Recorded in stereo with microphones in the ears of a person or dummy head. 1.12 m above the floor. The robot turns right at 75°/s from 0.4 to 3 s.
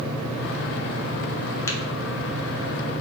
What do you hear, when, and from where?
1.7 s tapping: 15° left (ahead or behind), 0.6 m; by 1.8 s 20° left (ahead or behind), 0.6 m